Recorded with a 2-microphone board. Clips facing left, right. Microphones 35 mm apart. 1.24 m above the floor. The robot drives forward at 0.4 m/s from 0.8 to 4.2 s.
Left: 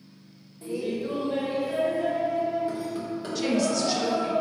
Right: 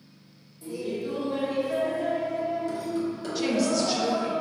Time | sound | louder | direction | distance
0.6 | laughter | left 2 dB | 40° left (ahead or behind) | 0.7 m
3.4 | a woman speaking | even | 5° right (ahead or behind) | 0.5 m